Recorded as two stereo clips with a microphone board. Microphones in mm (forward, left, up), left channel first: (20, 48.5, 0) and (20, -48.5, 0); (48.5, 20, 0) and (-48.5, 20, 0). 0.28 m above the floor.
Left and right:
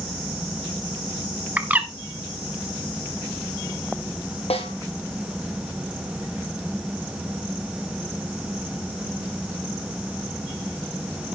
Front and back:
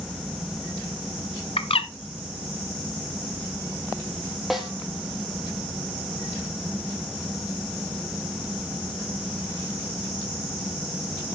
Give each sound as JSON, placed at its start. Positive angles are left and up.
{"t": 1.6, "sound": "a bird", "azimuth_deg": -15, "distance_m": 0.9}
{"t": 4.5, "sound": "a snare drum", "azimuth_deg": 90, "distance_m": 2.5}